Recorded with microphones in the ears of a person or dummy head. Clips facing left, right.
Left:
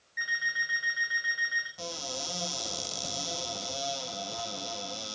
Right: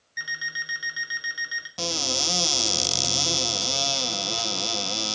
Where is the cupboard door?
85° right, 0.5 m.